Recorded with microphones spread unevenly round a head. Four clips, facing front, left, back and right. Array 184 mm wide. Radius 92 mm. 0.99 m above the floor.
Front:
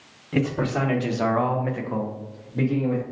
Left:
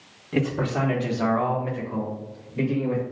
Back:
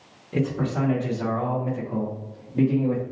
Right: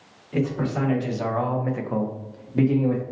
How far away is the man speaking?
About 1.3 m.